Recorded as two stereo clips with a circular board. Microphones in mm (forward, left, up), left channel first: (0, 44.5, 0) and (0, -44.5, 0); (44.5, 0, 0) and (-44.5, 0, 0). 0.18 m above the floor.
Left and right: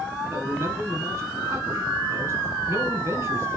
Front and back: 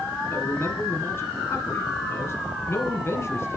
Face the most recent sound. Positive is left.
turn(degrees=-45)